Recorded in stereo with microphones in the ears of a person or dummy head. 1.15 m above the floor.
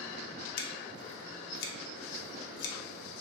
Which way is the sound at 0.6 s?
65° left (ahead or behind).